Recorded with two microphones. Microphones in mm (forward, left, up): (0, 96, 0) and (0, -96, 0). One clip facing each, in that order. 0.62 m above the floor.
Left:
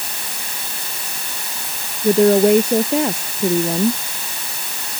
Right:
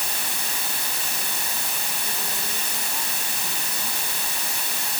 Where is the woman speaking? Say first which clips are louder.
Left 30 dB; 80° left.